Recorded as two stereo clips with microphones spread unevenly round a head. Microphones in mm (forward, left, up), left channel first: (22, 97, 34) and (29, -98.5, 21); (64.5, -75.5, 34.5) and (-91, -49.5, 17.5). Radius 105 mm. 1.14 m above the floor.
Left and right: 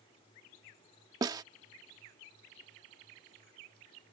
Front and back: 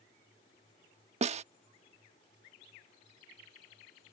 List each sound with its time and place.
1.2 s a snare drum: 160° right